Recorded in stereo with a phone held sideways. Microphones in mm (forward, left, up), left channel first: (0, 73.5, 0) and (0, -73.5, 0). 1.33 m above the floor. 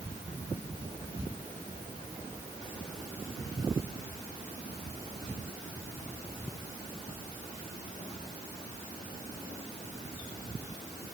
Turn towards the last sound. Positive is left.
No sound to turn to.